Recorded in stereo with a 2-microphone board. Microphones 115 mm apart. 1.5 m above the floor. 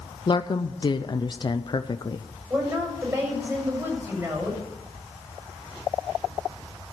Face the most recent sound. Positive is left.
turn(degrees=-25)  # may be behind; listen again after turning